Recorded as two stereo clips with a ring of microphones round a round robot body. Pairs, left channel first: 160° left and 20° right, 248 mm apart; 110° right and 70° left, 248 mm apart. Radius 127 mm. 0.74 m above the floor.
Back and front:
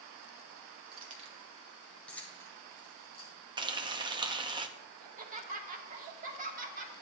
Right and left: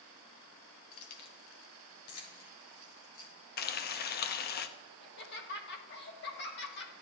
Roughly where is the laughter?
Right.